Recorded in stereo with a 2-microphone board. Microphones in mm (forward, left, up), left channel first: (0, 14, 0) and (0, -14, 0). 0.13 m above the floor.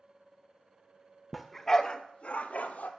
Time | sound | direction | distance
1.3 | a dog barking | centre (ahead or behind) | 0.7 m